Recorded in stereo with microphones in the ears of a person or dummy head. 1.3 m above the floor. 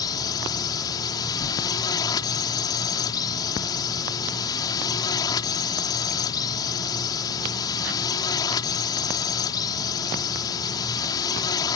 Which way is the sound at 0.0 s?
20° left (ahead or behind).